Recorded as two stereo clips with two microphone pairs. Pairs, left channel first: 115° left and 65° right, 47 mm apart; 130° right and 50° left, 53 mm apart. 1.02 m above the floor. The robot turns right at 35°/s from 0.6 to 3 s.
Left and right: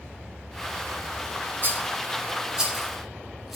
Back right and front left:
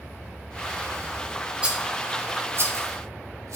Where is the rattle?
20° right, 1.7 m; by 3.6 s 30° left, 1.7 m.